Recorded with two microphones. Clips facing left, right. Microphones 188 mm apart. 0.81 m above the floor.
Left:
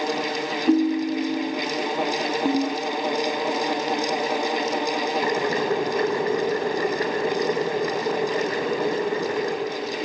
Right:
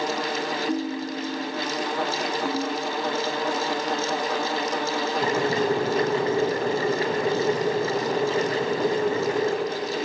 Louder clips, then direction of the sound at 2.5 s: Left 7 dB; 25° left (ahead or behind).